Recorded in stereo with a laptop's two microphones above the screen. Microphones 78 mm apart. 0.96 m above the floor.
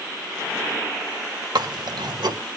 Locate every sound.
1.6 s chewing: 80° right, 1.8 m